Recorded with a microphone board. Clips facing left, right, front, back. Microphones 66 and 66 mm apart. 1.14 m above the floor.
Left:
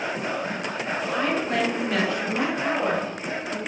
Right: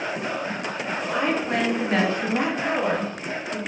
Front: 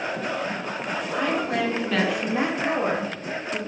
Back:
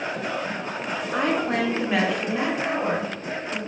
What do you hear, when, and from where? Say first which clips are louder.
1.1 s a woman speaking: right 1 dB, back 2 dB; 160° right, 0.9 m; by 3.6 s 5° right, 1.3 m